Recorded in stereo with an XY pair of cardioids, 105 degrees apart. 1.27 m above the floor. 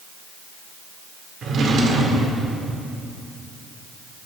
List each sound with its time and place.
1.4 s a drawer: 60° right, 2.5 m